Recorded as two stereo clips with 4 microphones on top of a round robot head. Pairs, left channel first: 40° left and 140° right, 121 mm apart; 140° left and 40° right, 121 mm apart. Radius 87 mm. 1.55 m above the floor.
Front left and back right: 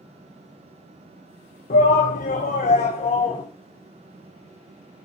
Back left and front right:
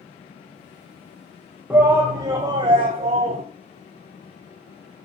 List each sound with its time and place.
1.7 s a shout: 40° left, 1.2 m; by 3.4 s 5° right, 1.1 m